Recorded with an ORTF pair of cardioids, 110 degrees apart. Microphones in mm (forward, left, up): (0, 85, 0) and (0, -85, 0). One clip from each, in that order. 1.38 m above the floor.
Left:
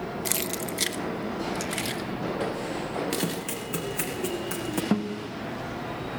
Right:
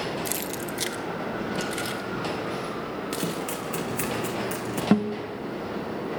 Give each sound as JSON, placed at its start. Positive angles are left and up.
{"t": 0.2, "sound": "keys jangling", "azimuth_deg": 20, "distance_m": 0.9}
{"t": 3.2, "sound": "running footsteps", "azimuth_deg": 10, "distance_m": 6.5}
{"t": 4.9, "sound": "a guitar", "azimuth_deg": -25, "distance_m": 2.5}